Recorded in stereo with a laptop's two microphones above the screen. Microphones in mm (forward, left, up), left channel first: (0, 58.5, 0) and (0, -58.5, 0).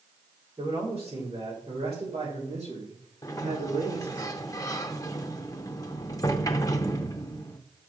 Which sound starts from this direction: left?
A sliding door, at 3.2 s.